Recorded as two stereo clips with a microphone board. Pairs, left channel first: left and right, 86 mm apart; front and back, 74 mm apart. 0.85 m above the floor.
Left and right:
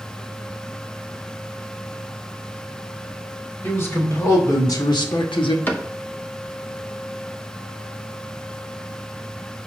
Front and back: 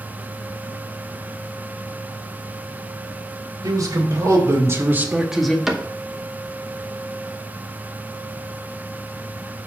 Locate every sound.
3.6 s a man speaking: 155° left, 3 m; by 5.6 s 80° left, 1.2 m
5.7 s a cupboard door: 105° left, 0.9 m